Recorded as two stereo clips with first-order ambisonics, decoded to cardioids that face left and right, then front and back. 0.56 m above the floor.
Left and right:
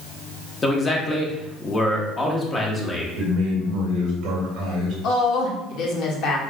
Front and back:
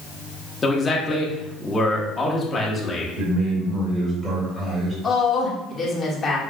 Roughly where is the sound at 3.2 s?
Behind right.